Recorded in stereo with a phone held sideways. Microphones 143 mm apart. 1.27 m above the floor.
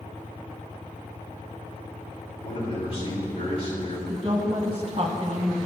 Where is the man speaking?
45° left (ahead or behind), 3.5 m.